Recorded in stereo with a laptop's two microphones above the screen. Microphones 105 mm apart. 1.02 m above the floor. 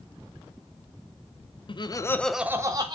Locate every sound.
1.7 s laughter: 50° left (ahead or behind), 0.7 m; by 3.0 s 45° right (ahead or behind), 0.8 m